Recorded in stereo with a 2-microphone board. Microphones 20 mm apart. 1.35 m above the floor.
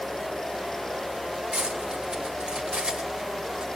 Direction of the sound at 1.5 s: 65° right (ahead or behind).